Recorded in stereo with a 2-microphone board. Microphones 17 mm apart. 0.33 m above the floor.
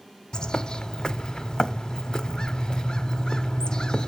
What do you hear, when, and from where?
0.3 s a bird: 50° left (ahead or behind), 0.6 m